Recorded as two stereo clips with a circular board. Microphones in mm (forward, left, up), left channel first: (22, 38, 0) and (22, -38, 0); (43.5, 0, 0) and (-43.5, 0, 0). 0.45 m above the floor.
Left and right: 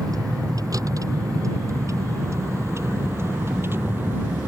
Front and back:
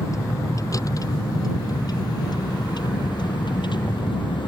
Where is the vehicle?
55° right; by 4.5 s 25° right.